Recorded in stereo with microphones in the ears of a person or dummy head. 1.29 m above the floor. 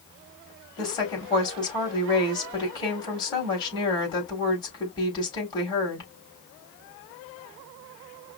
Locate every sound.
0.8 s a woman speaking: 25° left (ahead or behind), 4 m